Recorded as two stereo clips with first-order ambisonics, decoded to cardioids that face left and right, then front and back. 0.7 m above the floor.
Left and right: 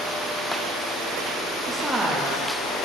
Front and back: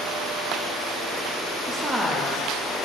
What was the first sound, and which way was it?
A woman speaking, 175° left.